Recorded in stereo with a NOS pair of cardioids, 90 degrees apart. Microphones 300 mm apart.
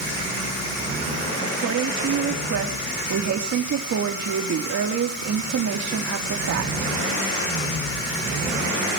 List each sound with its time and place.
1.4 s a woman speaking: 60° right, 3.5 m